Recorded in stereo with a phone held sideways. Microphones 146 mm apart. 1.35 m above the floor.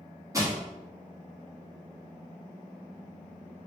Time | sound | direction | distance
0.3 | crushing | 20° right (ahead or behind) | 1.8 m